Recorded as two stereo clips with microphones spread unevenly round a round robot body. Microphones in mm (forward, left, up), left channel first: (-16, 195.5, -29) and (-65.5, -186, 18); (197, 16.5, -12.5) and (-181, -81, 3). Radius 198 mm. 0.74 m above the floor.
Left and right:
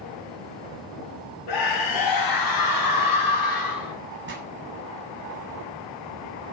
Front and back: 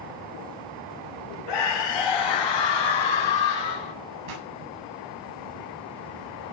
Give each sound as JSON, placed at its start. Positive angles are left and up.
{"t": 1.5, "sound": "a scream", "azimuth_deg": 45, "distance_m": 3.0}
{"t": 4.3, "sound": "a pop", "azimuth_deg": -160, "distance_m": 6.5}